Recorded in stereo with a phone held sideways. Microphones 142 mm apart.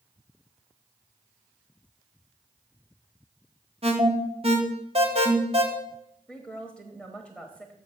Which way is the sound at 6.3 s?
Centre (ahead or behind).